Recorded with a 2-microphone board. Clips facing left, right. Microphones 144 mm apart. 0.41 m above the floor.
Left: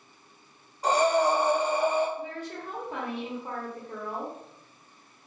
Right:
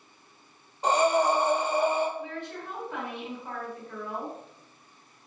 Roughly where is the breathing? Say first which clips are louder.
Even; right.